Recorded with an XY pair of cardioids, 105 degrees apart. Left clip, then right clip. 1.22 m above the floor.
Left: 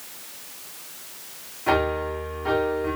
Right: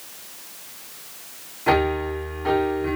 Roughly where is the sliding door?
No sliding door in this recording.